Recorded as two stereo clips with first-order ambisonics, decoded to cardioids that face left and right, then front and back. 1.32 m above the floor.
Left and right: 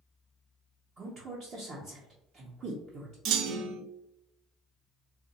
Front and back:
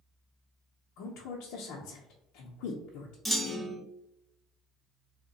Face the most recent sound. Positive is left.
turn(degrees=-95)